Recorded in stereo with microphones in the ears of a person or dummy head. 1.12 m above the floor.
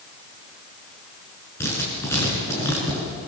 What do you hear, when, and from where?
1.6 s writing: 15° left (ahead or behind), 7 m